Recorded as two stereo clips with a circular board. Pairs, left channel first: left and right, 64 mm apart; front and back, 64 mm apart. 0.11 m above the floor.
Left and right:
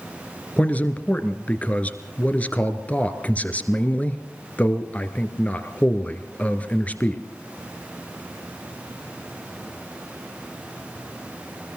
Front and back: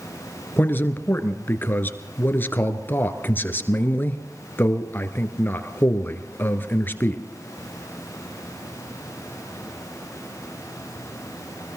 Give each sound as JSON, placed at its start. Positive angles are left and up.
{"t": 0.6, "sound": "a man speaking", "azimuth_deg": 35, "distance_m": 1.8}